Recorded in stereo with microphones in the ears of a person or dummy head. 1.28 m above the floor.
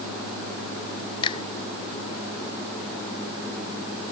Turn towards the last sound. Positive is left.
turn(degrees=30)  # may be behind; listen again after turning